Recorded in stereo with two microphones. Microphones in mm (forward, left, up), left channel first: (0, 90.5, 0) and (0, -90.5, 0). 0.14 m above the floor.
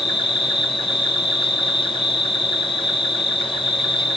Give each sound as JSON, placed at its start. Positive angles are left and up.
{"t": 0.0, "sound": "an insect", "side_deg": 30, "distance_m": 0.7}